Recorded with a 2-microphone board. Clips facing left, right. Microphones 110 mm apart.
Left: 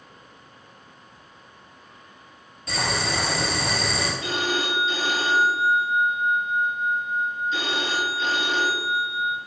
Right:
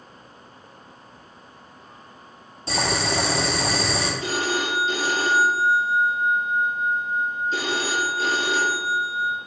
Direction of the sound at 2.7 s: 30° right (ahead or behind).